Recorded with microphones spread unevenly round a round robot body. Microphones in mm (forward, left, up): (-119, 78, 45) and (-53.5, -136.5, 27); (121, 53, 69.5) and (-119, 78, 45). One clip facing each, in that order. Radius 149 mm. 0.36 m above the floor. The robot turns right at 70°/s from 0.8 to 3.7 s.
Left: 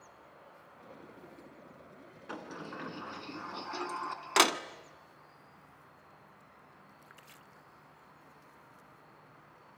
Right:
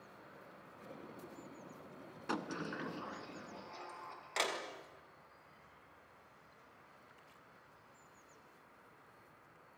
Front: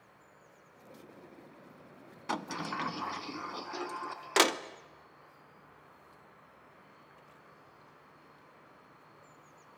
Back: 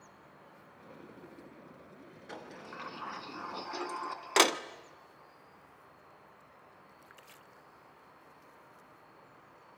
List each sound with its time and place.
0.0 s an insect: 140° right, 7 m; by 9.8 s 60° left, 7 m
2.3 s a sliding door: 20° right, 0.9 m; by 4.6 s 80° left, 0.9 m